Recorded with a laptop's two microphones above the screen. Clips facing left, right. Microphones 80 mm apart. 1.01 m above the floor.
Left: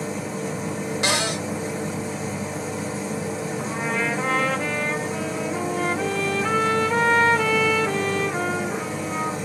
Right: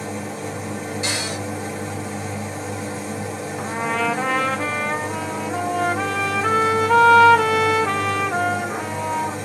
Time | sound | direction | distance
0.0 | a machine running | 5° left (ahead or behind) | 1.5 m
1.0 | a cupboard door | 70° left (ahead or behind) | 0.6 m
3.6 | a trumpet | 80° right | 0.5 m